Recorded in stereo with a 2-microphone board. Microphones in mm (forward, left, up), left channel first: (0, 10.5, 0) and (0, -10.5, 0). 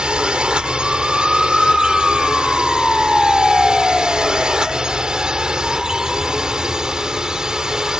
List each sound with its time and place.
0.0 s a drone: 50° right (ahead or behind); by 8.0 s 35° right (ahead or behind)